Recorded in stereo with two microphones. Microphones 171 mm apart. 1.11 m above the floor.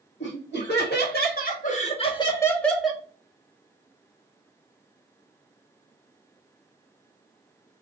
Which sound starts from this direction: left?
Laughter, at 0.2 s.